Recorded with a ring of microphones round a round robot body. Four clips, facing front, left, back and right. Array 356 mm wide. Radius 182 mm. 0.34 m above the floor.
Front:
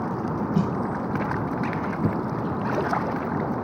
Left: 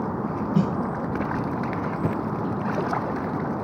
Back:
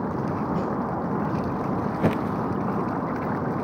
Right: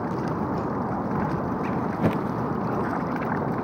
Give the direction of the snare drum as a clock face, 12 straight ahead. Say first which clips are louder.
Left 4 dB, front 2 dB; 10 o'clock.